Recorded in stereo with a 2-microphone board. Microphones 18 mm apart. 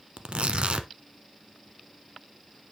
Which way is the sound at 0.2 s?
75° right (ahead or behind).